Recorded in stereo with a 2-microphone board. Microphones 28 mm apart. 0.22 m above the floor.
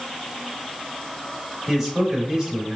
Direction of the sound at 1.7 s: 5° right (ahead or behind).